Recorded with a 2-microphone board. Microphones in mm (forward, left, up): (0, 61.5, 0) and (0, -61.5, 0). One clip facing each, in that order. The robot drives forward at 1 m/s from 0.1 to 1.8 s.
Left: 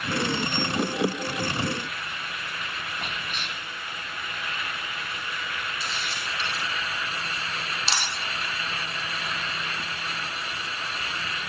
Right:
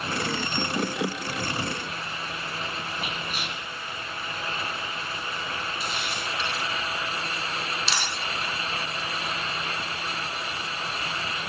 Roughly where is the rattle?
I don't hear a rattle.